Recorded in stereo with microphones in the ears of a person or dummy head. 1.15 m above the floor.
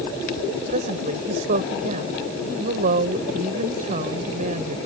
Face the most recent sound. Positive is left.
turn(degrees=-50)  # may be behind; listen again after turning